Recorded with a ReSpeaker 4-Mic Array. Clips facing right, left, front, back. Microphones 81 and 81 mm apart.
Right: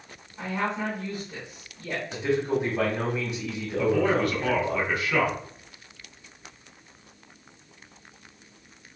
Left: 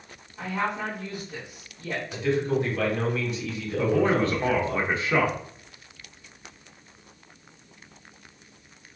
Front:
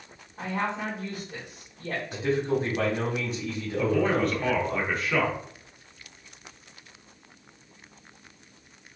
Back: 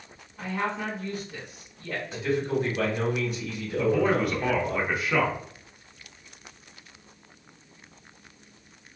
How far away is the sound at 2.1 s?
About 1.5 m.